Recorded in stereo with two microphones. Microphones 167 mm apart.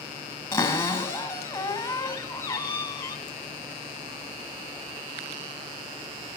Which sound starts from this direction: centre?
A cupboard door, at 0.5 s.